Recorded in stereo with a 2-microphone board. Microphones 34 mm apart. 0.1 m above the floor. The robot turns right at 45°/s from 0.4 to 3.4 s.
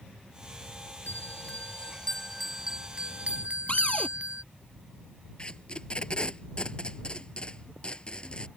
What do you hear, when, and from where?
1.1 s a bell: 120° left; by 4.4 s 135° right
3.7 s a cupboard door: 40° left (ahead or behind)
5.4 s tape being pulled: 30° left (ahead or behind)